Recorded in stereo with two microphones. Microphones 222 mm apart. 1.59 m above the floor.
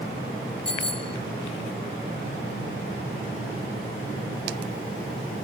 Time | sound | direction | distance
0.7 | a bicycle bell | 65° right (ahead or behind) | ?